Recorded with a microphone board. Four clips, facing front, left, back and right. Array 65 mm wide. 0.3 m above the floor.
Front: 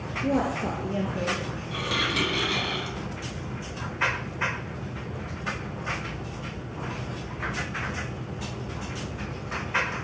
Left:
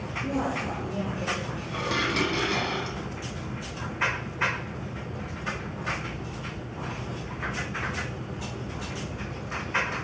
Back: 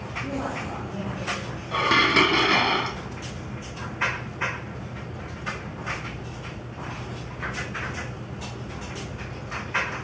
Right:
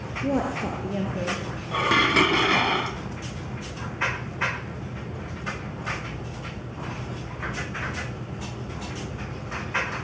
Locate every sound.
0.2 s a woman speaking: 60° right, 5 m
1.7 s dishes clattering: 140° right, 1.4 m